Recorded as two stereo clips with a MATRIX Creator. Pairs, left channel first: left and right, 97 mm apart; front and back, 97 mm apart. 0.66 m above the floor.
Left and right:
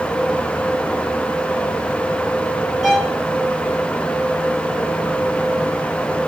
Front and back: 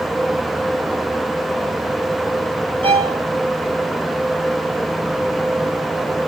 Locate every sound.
2.8 s a violin: 175° right, 1.1 m